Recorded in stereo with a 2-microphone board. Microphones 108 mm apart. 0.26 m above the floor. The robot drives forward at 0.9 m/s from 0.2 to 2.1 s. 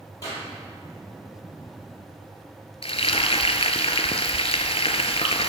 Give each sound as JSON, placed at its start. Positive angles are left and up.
{"t": 0.2, "sound": "a clap", "side_deg": 35, "distance_m": 5.5}
{"t": 2.8, "sound": "frying", "side_deg": 65, "distance_m": 0.8}